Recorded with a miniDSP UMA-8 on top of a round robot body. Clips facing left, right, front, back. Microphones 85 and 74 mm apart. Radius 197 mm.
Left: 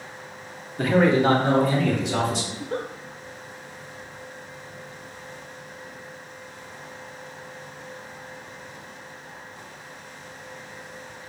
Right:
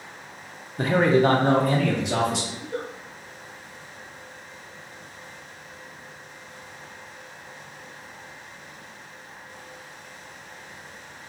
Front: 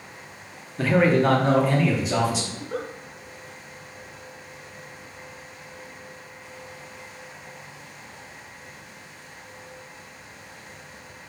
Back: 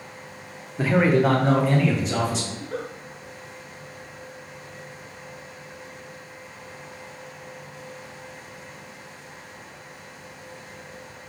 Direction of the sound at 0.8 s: 120° right.